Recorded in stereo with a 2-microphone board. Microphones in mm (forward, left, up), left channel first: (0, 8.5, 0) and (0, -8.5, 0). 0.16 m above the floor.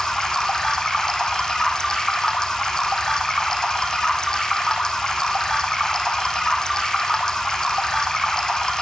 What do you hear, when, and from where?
0.0 s running water: 35° left (ahead or behind), 2.5 m